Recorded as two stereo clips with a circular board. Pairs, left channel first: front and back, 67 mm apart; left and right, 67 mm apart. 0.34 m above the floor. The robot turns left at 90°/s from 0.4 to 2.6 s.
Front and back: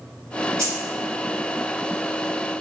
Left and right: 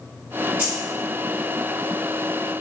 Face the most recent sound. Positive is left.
turn(degrees=25)